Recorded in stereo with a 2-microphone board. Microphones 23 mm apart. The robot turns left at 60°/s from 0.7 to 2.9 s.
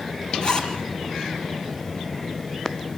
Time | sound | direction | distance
0.4 | a zipper | 40° left (ahead or behind) | 4 m